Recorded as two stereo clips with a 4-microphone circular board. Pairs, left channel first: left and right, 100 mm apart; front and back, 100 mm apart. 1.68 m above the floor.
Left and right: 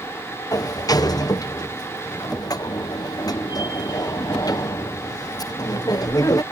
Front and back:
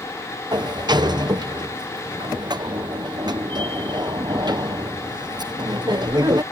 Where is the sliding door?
140° left.